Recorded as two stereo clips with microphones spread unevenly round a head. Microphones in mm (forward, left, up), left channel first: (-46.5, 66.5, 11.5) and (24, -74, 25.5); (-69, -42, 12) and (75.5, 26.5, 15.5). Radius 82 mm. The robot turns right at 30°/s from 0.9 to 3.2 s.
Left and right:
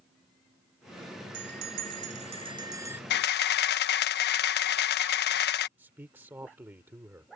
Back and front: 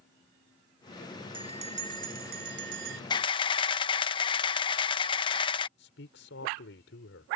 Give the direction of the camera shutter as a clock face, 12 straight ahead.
7 o'clock.